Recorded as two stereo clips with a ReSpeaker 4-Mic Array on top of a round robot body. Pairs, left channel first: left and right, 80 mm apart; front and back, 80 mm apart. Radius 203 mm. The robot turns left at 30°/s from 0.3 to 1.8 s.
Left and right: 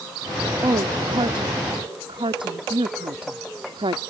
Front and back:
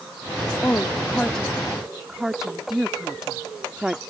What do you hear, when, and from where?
0.6 s a woman speaking: 60° right; by 4.0 s 95° right